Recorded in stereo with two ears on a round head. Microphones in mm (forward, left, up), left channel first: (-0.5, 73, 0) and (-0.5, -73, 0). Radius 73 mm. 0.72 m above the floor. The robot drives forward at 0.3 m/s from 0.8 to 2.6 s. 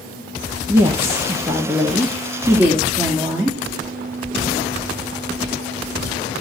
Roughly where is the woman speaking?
Centre.